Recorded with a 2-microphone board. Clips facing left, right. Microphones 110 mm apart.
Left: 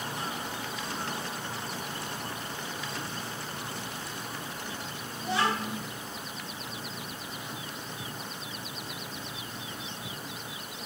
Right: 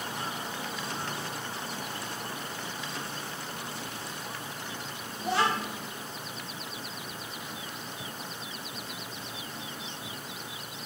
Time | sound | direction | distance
5.2 | a child speaking | 50° right (ahead or behind) | 0.6 m